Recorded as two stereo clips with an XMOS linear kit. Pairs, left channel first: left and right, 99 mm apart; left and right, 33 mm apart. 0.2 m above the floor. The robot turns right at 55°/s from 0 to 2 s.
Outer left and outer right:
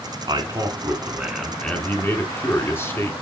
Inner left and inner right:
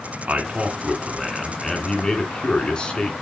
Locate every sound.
0.3 s a man speaking: 65° right, 2 m; by 3.2 s 30° left, 2 m